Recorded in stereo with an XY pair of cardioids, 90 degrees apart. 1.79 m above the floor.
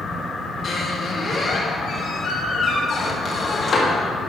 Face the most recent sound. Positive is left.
turn(degrees=50)